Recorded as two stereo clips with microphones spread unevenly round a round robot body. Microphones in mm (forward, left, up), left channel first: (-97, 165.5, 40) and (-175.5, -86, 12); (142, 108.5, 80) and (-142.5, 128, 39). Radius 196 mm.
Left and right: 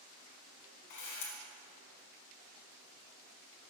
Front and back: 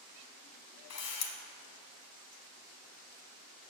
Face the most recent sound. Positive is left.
turn(degrees=30)